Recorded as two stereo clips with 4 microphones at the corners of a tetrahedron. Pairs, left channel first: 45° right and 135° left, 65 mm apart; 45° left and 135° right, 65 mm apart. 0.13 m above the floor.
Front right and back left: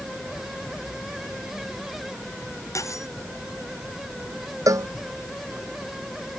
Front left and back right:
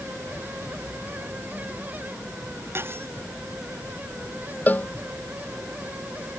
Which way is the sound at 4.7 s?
105° left.